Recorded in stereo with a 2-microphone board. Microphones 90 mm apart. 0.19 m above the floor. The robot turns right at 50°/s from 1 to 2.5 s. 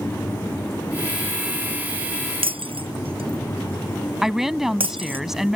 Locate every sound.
2.4 s breaking glass: 85° right; by 5.2 s 80° right
4.2 s a woman speaking: 5° right (ahead or behind)